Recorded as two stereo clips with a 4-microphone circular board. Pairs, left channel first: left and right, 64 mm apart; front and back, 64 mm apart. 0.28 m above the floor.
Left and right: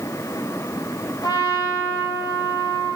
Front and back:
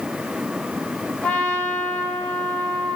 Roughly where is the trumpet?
Left.